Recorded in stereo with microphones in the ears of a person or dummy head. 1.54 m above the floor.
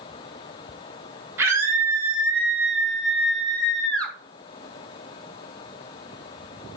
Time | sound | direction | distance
1.4 | a scream | 15° right (ahead or behind) | 6.5 m